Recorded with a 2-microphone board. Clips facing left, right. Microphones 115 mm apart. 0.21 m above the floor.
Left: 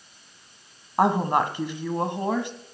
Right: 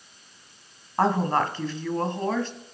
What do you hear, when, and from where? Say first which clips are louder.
1.0 s a woman speaking: left 1 dB; 15° left (ahead or behind), 1.2 m